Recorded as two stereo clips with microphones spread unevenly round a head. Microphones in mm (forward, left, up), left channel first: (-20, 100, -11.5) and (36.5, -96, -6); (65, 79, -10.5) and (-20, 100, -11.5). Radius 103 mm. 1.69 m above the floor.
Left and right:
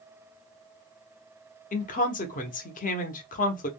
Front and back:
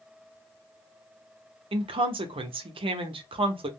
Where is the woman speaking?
160° left, 0.7 m.